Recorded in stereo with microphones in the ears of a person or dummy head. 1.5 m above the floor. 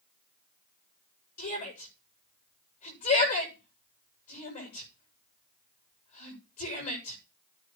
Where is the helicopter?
I don't hear a helicopter.